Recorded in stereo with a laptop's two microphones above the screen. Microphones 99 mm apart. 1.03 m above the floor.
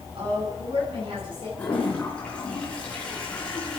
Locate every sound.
0.1 s a woman speaking: 60° right (ahead or behind), 10 m
1.6 s a toilet flushing: 10° left (ahead or behind), 5 m